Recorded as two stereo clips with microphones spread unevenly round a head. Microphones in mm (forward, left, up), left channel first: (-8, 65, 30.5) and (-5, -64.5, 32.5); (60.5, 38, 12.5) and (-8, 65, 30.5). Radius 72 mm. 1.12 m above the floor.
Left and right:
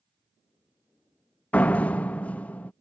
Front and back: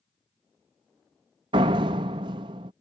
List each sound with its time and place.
1.5 s a door slam: 170° left